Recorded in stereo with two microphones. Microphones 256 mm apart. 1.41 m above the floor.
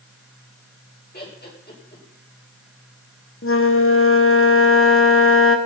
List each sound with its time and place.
1.1 s laughter: 40° left (ahead or behind), 6.5 m
3.4 s a flute: 55° left (ahead or behind), 1.4 m